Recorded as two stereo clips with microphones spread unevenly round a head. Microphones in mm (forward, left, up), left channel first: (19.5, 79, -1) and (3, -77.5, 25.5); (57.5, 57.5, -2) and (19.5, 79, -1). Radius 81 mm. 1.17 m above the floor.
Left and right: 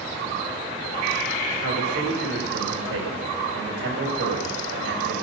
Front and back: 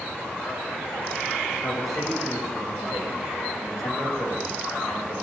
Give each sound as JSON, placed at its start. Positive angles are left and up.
{"t": 1.6, "sound": "a man speaking", "azimuth_deg": -80, "distance_m": 6.0}